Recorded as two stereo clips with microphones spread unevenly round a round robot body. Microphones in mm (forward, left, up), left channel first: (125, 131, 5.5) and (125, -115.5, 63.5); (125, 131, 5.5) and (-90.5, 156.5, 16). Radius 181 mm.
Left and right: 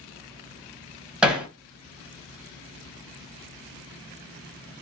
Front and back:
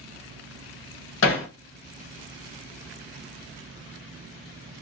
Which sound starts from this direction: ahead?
Hammering, at 1.2 s.